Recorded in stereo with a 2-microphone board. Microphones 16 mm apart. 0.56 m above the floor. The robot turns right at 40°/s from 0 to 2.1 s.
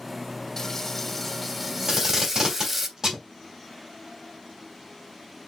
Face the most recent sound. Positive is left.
turn(degrees=-50)  # may be behind; listen again after turning